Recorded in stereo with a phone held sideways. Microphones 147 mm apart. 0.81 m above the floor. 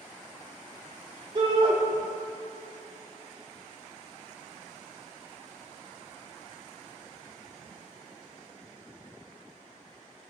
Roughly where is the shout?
Right.